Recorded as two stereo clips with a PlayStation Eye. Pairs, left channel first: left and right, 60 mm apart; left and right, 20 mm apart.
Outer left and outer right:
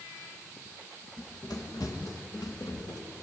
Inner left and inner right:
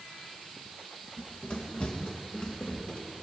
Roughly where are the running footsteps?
Left.